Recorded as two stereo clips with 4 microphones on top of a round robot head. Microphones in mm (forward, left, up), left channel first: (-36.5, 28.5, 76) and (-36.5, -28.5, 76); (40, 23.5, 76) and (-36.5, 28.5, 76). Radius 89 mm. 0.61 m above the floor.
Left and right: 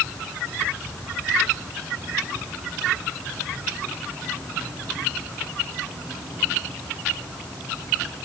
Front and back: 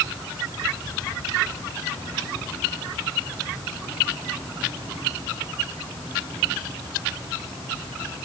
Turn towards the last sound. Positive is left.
No sound to turn to.